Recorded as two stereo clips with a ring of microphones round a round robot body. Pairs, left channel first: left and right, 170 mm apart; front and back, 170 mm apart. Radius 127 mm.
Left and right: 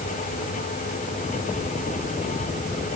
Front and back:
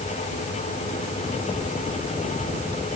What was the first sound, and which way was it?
Only background noise.